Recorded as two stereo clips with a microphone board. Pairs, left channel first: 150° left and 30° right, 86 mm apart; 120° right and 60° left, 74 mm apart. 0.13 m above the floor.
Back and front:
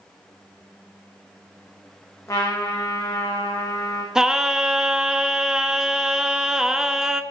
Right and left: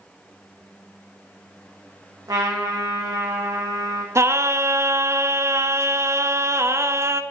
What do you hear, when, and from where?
2.3 s a trumpet: 95° left, 2 m
4.2 s singing: 50° left, 0.5 m